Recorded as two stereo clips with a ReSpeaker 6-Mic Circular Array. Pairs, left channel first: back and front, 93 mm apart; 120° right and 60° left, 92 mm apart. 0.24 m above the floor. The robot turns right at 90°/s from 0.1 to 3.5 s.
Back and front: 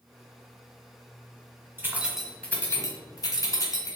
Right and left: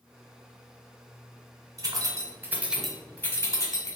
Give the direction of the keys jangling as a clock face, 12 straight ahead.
10 o'clock.